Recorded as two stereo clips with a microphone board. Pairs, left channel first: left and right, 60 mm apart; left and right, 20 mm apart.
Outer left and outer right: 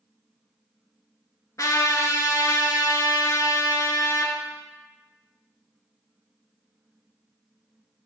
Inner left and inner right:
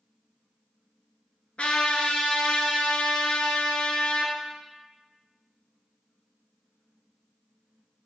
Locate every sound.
1.6 s a trumpet: 70° left (ahead or behind), 0.5 m